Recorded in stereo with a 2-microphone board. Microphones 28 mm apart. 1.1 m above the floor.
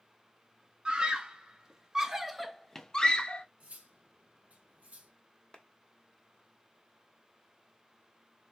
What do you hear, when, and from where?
0.8 s a scream: 35° right (ahead or behind), 1.7 m; by 3.5 s 35° left (ahead or behind), 0.8 m
3.6 s cutlery clinking: 50° right (ahead or behind), 1.8 m
5.5 s a clap: 35° left (ahead or behind), 0.9 m